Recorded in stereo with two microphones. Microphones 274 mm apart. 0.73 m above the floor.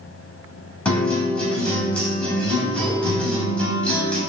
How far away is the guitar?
About 1.7 m.